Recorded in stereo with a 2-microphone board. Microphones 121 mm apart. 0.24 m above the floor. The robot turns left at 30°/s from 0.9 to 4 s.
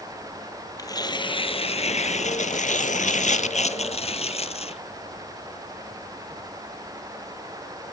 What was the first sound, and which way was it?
Tearing paper, 150° left.